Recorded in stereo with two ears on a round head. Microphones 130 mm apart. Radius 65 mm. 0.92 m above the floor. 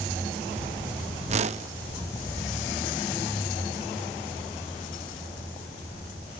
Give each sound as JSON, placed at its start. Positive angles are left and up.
{"t": 1.3, "sound": "a whoosh", "side_deg": -45, "distance_m": 0.7}